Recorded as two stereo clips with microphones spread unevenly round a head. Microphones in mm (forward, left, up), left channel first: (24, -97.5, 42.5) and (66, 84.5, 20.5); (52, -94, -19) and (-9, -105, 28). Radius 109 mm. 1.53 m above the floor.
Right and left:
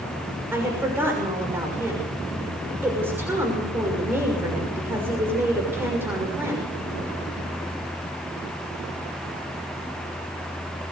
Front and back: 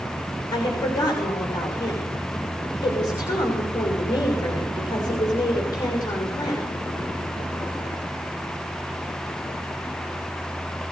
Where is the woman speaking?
Straight ahead, 6 m.